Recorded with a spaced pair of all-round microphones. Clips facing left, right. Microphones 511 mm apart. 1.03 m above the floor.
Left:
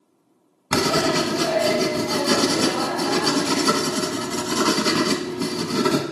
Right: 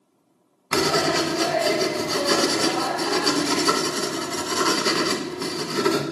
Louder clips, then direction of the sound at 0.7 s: Left 1 dB; 55° left (ahead or behind).